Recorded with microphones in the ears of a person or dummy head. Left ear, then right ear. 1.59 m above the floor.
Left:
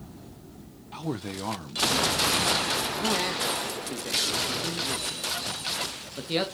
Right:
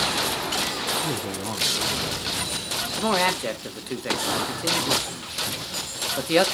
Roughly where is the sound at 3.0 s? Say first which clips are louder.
Right 4 dB; right.